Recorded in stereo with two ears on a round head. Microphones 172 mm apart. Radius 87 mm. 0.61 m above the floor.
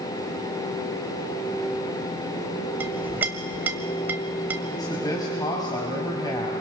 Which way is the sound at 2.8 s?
10° right (ahead or behind).